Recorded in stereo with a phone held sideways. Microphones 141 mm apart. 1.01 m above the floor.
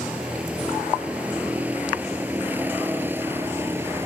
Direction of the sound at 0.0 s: 5° right (ahead or behind).